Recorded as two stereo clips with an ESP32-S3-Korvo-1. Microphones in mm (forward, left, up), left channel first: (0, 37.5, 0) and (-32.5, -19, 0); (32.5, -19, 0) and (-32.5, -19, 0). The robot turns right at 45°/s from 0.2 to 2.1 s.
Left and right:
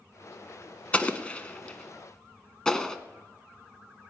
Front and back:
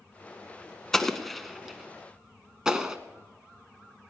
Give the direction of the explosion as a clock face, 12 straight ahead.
10 o'clock.